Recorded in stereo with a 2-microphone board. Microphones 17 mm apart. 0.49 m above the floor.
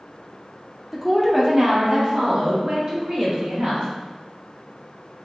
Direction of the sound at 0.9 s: Centre (ahead or behind).